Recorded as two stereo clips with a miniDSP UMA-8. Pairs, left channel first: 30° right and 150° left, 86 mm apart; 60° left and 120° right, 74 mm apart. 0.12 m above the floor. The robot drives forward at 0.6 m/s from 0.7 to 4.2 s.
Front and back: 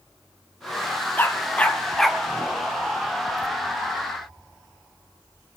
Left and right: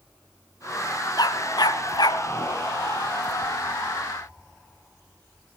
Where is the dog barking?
35° left, 1.4 m; by 2.2 s 60° left, 1.0 m.